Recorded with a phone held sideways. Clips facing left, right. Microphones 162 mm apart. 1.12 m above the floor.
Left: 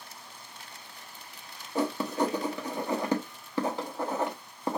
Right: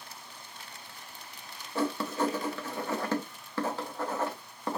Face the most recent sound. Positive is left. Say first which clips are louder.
# left 2 dB
turn(degrees=15)  # may be behind; listen again after turning